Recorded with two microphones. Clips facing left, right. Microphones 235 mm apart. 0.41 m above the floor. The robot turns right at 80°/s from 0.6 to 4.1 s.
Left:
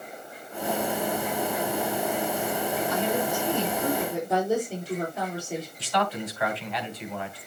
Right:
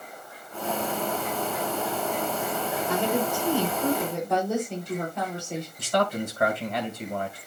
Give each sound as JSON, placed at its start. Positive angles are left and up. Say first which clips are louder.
{"t": 2.9, "sound": "a woman speaking", "louder": "right 4 dB", "azimuth_deg": -90, "distance_m": 7.5}
{"t": 5.8, "sound": "a man speaking", "louder": "right 5 dB", "side_deg": -50, "distance_m": 3.0}